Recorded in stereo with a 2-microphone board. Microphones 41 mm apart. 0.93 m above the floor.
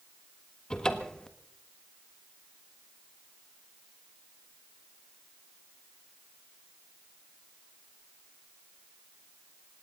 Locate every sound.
0.7 s a cupboard door: 20° left (ahead or behind), 1.4 m